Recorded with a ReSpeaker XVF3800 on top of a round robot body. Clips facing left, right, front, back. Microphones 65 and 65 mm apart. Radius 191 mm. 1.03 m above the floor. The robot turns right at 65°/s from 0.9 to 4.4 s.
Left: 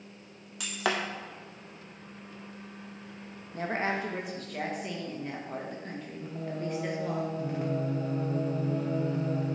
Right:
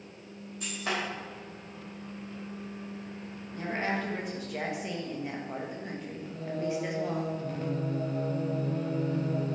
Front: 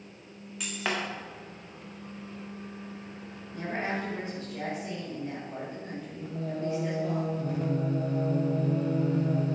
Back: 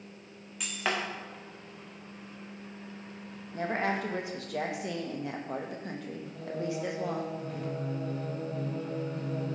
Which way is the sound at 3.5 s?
130° left.